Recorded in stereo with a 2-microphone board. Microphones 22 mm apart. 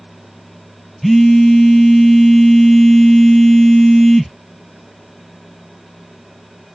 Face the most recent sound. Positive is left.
turn(degrees=15)  # may be behind; listen again after turning